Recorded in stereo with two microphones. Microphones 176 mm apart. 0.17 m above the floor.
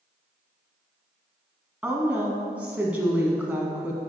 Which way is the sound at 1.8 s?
10° right (ahead or behind).